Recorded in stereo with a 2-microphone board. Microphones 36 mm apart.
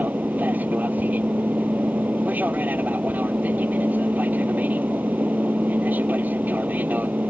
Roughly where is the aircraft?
Right.